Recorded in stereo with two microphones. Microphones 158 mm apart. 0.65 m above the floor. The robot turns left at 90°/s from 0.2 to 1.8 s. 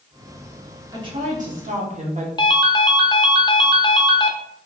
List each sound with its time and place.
0.9 s a woman speaking: 30° right, 1.5 m; by 2.3 s 110° right, 1.5 m
2.4 s a ringtone: 25° left (ahead or behind), 0.7 m